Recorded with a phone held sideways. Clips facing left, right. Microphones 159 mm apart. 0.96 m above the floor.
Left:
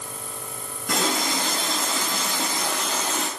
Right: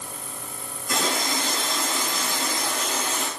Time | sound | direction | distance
0.9 | a running tap | 70° left (ahead or behind) | 6.5 m